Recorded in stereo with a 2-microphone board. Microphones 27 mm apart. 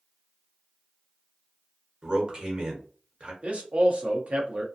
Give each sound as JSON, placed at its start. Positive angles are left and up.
{"t": 2.0, "sound": "a man speaking", "side_deg": -40, "distance_m": 1.1}
{"t": 3.4, "sound": "a man speaking", "side_deg": -55, "distance_m": 0.8}